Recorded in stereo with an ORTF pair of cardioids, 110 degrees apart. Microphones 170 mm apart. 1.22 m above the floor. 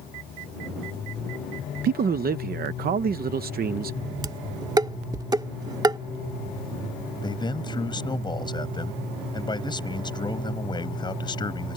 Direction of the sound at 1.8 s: 65° right.